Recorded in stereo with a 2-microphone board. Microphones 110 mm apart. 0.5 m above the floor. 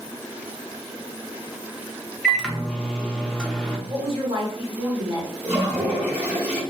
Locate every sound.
2.2 s a microwave: 5° left (ahead or behind), 0.5 m
3.9 s a woman speaking: 50° right (ahead or behind), 1.4 m
5.4 s a toilet flushing: 15° right (ahead or behind), 2.0 m